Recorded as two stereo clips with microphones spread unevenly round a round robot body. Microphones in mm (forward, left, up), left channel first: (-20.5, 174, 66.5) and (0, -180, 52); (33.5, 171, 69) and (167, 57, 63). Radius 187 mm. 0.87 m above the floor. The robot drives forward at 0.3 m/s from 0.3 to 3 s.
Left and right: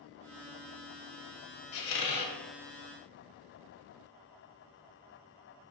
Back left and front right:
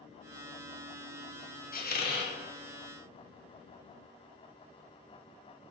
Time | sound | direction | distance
1.7 | a squeak | 100° left | 0.7 m